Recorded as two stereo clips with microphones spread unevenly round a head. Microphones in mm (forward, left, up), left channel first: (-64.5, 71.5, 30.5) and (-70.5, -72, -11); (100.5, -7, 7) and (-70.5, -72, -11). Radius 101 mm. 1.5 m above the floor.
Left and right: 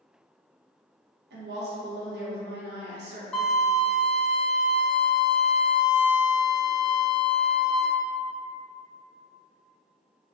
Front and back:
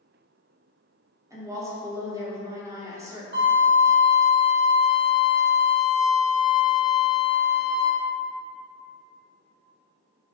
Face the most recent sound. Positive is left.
turn(degrees=160)